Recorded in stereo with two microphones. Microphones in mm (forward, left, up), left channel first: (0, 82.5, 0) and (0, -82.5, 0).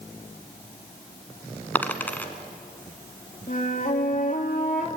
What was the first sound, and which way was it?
A dropped coin, 10° left (ahead or behind).